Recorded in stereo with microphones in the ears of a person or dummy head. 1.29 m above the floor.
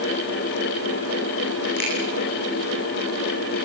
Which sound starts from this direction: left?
A finger snap, at 1.8 s.